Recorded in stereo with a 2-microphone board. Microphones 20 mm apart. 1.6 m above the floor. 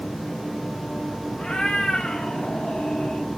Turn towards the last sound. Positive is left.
turn(degrees=65)  # may be behind; listen again after turning